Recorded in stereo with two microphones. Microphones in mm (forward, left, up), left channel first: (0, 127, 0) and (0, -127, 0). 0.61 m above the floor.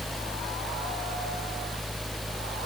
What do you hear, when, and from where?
Only background noise.